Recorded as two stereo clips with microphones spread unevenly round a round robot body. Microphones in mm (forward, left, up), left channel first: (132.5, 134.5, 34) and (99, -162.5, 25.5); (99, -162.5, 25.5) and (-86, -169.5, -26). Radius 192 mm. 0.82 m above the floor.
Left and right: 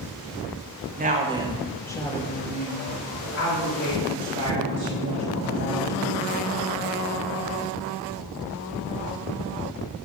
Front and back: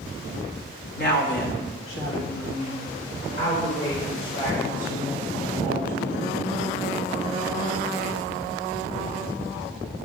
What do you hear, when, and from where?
1.0 s a woman speaking: 40° right, 1.8 m; by 6.3 s 70° left, 5.5 m